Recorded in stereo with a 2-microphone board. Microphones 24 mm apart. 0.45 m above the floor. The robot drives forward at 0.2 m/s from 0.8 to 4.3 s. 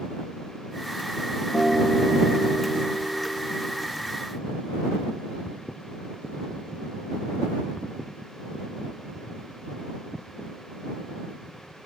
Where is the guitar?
20° right (ahead or behind), 2 m; by 3.9 s 25° right (ahead or behind), 1.6 m.